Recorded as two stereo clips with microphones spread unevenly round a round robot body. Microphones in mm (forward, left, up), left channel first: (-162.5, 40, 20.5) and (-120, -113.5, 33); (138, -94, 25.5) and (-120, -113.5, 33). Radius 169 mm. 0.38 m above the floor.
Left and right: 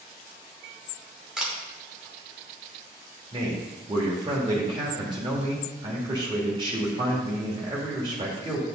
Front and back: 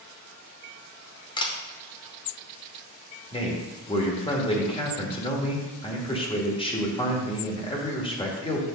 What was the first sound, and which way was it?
A camera shutter, 15° left.